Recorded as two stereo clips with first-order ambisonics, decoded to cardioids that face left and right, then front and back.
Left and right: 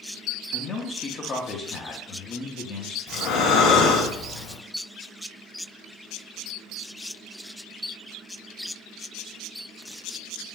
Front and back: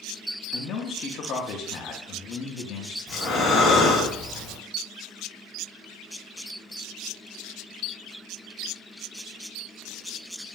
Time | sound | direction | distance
0.5 | a man speaking | 35° left | 0.7 m
3.1 | breathing | 65° left | 1.5 m